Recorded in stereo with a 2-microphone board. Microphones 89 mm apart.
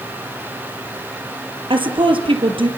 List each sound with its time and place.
1.7 s a woman speaking: 75° right (ahead or behind), 4 m